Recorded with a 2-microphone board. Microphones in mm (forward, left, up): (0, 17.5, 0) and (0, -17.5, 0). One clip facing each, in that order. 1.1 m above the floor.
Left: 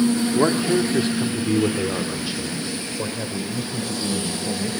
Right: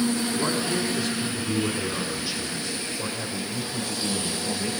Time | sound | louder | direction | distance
0.3 | a man speaking | left 7 dB | 45° left (ahead or behind) | 2.0 m